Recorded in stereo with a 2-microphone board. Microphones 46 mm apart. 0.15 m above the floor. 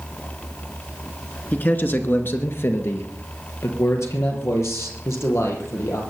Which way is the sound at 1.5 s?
40° left (ahead or behind).